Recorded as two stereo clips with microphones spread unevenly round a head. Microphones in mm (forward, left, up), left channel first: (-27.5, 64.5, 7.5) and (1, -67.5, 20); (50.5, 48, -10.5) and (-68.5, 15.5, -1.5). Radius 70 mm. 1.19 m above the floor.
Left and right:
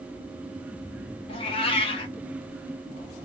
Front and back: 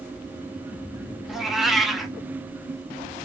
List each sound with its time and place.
1.3 s a cat meowing: 115° left, 0.7 m